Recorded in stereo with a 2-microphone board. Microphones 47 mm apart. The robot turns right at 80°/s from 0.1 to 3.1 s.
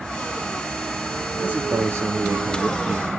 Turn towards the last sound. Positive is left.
turn(degrees=-5)